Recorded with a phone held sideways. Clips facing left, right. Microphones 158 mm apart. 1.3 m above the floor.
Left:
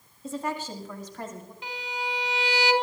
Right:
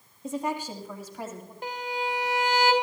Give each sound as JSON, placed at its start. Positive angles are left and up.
{"t": 0.2, "sound": "a woman speaking", "side_deg": -20, "distance_m": 1.8}
{"t": 1.6, "sound": "a violin", "side_deg": -50, "distance_m": 2.0}